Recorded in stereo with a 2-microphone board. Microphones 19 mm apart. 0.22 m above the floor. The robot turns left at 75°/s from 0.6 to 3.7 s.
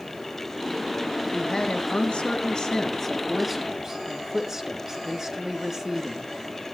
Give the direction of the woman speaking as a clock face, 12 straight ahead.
7 o'clock.